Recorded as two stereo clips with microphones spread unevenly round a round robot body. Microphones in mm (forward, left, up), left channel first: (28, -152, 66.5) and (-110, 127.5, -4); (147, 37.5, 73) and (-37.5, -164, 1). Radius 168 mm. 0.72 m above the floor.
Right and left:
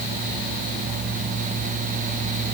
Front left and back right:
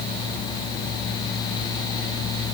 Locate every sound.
Only background noise.